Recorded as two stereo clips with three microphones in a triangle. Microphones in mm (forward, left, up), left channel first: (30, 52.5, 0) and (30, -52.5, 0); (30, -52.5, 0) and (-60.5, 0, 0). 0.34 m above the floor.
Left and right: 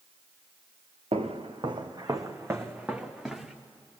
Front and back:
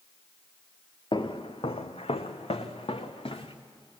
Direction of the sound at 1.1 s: 70° right.